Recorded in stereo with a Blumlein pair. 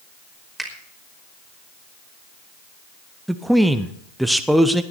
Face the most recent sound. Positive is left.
turn(degrees=-5)